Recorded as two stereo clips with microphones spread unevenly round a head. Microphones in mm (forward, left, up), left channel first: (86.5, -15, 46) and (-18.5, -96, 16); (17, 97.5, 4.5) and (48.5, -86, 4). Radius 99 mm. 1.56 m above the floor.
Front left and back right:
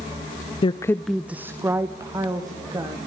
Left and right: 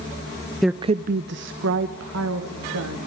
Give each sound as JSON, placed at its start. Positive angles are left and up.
{"t": 0.6, "sound": "a woman speaking", "azimuth_deg": 10, "distance_m": 0.5}